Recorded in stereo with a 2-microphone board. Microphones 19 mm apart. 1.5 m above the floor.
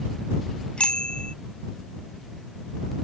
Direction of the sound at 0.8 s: 80° left.